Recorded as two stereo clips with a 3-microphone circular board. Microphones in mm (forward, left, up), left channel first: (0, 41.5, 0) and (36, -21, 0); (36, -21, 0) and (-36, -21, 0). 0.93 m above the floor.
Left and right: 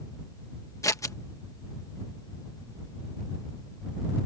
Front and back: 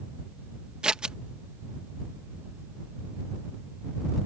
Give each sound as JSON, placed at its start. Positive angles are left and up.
{"t": 0.8, "sound": "scissors", "azimuth_deg": 105}